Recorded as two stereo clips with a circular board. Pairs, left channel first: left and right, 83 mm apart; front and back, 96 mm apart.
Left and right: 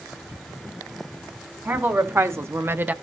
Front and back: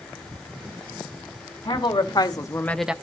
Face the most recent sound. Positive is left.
turn(degrees=-125)